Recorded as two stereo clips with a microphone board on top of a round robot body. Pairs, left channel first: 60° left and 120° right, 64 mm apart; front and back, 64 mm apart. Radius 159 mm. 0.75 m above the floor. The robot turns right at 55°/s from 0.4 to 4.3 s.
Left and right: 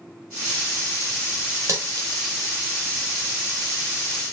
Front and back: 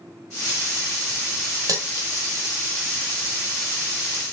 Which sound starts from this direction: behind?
Cutlery clinking, at 1.7 s.